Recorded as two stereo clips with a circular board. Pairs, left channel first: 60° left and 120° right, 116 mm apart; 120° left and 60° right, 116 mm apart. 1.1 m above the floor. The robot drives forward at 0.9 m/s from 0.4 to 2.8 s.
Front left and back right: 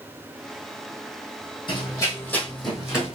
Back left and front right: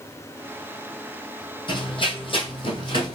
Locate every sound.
1.7 s running footsteps: 90° left, 1.7 m; by 3.2 s 165° left, 2.0 m